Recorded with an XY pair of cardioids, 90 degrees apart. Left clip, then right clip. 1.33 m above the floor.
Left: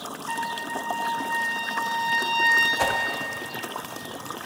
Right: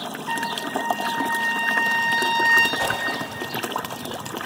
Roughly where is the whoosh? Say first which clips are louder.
Even; ahead left.